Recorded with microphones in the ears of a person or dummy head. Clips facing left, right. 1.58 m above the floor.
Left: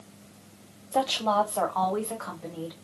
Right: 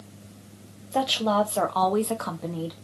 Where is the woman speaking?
10° right (ahead or behind), 0.8 m; by 2.7 s 55° right (ahead or behind), 0.9 m.